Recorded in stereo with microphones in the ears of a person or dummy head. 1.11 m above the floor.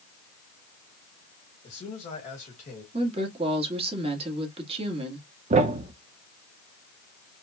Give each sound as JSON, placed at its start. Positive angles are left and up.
{"t": 1.6, "sound": "a man speaking", "side_deg": 40, "distance_m": 1.7}
{"t": 2.9, "sound": "a woman speaking", "side_deg": -35, "distance_m": 1.5}
{"t": 5.5, "sound": "a thud", "side_deg": -40, "distance_m": 0.8}